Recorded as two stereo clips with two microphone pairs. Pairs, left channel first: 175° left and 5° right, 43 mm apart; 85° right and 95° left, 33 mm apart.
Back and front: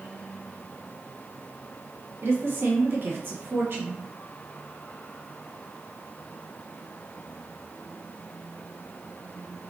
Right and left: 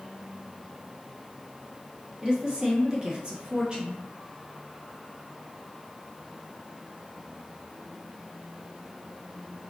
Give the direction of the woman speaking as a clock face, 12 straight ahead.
11 o'clock.